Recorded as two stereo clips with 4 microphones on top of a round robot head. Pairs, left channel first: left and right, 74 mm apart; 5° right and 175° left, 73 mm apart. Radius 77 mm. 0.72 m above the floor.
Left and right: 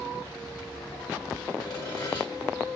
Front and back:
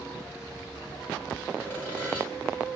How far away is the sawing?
About 3 m.